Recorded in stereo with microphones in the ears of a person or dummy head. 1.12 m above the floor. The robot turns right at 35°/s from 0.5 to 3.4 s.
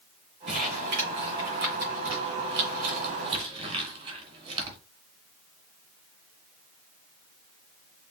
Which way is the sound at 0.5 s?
40° right (ahead or behind).